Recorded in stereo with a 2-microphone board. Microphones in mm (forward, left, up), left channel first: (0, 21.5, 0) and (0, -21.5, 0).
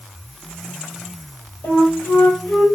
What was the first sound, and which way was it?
A flute, 55° left (ahead or behind).